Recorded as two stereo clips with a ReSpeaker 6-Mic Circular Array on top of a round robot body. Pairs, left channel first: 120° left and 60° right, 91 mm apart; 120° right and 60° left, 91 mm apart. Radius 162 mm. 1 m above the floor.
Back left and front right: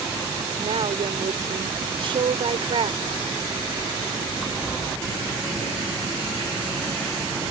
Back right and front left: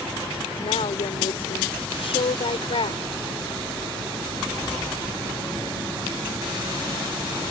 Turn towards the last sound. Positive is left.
turn(degrees=-95)